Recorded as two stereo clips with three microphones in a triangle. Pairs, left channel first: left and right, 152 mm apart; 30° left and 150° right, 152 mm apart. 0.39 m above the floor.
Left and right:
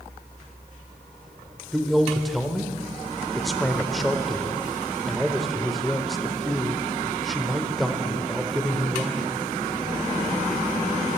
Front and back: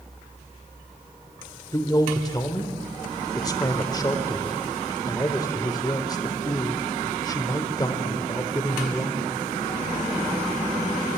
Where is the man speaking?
Straight ahead, 0.8 m.